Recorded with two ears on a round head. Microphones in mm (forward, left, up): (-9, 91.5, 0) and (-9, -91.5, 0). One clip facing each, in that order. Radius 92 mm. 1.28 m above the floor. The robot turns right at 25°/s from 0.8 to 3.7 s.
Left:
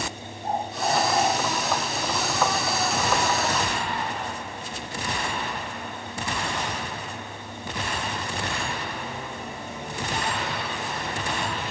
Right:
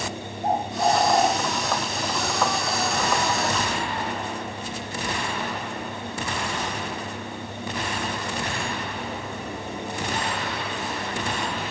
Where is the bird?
50° right (ahead or behind), 1.8 m; by 1.3 s 40° right (ahead or behind), 1.8 m.